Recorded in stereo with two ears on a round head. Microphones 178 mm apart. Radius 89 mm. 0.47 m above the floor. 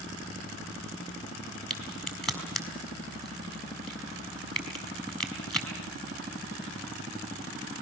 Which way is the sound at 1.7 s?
Centre (ahead or behind).